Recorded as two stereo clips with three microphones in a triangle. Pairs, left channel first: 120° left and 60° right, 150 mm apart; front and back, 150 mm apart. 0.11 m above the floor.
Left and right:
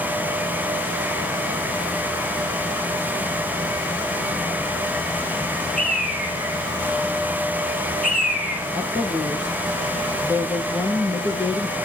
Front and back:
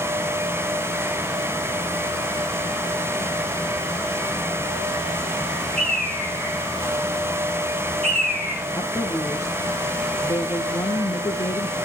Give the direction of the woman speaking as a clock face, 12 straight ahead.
10 o'clock.